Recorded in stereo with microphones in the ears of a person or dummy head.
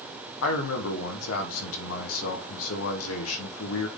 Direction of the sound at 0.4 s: 80° left.